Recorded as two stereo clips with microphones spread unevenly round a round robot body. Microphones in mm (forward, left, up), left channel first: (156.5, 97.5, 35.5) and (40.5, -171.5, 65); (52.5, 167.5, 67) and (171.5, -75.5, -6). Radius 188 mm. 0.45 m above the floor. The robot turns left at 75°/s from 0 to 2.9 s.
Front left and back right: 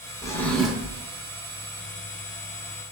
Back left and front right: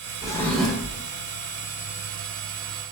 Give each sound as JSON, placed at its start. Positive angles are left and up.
{"t": 0.2, "sound": "a drawer", "azimuth_deg": 20, "distance_m": 0.5}